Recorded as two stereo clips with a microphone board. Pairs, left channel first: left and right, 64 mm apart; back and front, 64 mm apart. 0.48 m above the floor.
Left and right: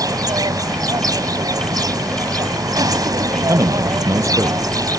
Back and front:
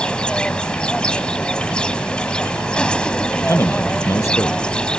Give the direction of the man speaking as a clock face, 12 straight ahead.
4 o'clock.